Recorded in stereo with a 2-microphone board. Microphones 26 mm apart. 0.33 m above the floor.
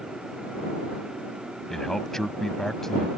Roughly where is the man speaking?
Centre.